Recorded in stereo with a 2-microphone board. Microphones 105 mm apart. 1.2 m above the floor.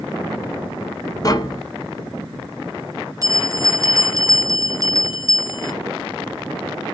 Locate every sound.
1.2 s tapping: 35° left (ahead or behind), 0.8 m
3.2 s a bell: 30° right (ahead or behind), 0.6 m